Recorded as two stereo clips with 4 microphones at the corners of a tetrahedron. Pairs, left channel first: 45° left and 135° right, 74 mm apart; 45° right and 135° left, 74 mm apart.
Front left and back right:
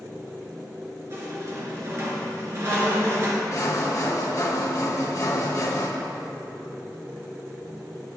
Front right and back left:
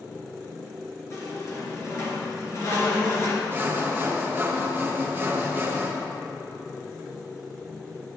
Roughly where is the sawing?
Left.